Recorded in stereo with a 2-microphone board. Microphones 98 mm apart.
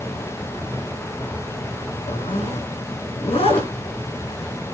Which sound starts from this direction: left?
A zipper, at 2.1 s.